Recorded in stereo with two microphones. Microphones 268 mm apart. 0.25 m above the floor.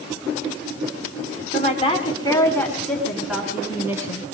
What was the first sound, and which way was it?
A woman speaking, 30° left (ahead or behind).